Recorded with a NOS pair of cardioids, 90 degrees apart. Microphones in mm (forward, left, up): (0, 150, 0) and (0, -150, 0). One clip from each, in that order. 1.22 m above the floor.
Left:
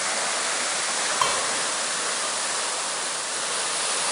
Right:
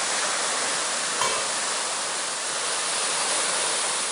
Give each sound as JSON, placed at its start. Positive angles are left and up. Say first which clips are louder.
{"t": 1.2, "sound": "dishes clattering", "louder": "left 2 dB", "azimuth_deg": 5, "distance_m": 7.5}